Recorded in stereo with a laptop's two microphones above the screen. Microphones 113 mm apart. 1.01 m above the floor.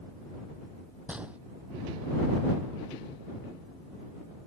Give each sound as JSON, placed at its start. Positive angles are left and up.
{"t": 1.1, "sound": "a gunshot", "side_deg": -10}